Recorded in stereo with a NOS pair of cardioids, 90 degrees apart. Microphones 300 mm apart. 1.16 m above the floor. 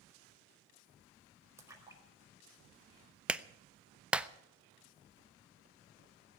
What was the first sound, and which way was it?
A splash, 10° right.